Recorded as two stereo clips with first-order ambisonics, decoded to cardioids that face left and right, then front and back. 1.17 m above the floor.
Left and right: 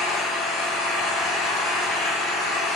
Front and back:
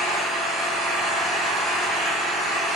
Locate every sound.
0.0 s an engine running: 70° left, 1.2 m